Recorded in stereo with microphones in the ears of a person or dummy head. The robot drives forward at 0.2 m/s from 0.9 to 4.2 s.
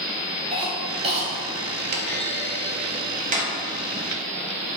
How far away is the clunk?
About 0.5 m.